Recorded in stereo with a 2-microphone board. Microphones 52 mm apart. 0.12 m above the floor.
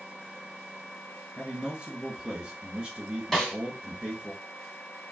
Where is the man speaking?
20° right (ahead or behind), 1.6 m.